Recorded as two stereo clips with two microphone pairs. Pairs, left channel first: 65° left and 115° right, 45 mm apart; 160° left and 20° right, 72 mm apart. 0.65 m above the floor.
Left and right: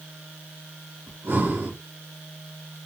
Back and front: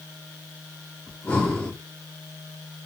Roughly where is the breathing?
Behind right.